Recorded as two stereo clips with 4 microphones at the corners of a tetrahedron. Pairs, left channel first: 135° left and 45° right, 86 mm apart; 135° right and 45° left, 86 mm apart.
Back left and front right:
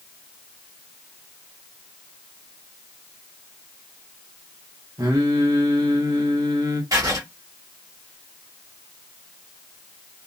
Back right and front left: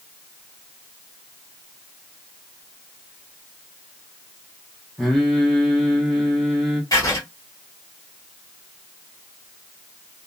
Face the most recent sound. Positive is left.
turn(degrees=-90)